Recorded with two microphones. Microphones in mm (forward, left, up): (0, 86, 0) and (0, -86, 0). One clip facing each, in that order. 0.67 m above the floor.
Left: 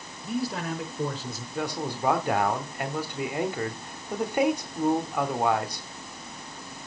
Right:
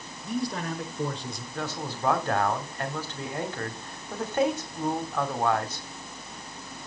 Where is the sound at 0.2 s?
5° left (ahead or behind), 2.5 m.